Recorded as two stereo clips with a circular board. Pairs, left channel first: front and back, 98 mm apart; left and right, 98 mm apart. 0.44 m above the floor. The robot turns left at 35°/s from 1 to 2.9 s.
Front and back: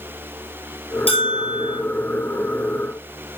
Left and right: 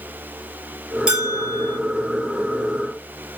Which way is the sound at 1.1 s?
10° right.